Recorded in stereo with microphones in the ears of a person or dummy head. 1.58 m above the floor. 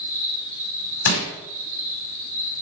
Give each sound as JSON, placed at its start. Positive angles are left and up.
{"t": 0.0, "sound": "an insect", "side_deg": -60, "distance_m": 2.0}
{"t": 1.1, "sound": "crushing", "side_deg": 80, "distance_m": 5.0}